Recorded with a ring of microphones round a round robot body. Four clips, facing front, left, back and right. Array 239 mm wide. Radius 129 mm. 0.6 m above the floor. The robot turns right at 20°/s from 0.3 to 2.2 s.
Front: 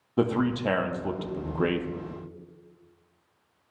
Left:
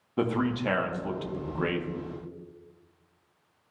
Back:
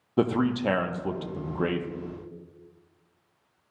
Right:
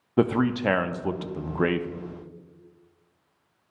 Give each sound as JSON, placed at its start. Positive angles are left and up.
{"t": 0.2, "sound": "a man speaking", "azimuth_deg": -105, "distance_m": 0.6}